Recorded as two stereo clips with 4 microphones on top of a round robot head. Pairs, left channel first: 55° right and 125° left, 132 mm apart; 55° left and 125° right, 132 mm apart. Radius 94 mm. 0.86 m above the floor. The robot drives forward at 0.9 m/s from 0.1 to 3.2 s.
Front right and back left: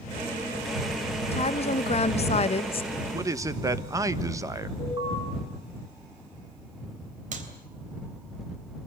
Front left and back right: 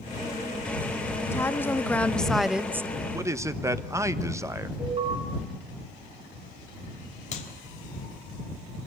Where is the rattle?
I don't hear a rattle.